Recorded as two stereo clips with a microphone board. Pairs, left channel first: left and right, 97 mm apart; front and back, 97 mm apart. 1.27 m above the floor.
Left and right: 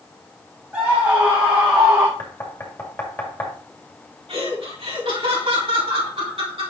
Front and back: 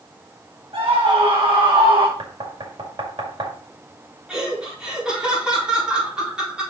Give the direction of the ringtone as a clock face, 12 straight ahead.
No ringtone in this recording.